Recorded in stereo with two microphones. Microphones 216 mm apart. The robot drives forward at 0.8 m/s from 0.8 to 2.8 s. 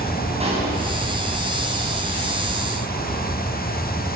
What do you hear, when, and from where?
0.4 s a pop: 30° right (ahead or behind), 9.5 m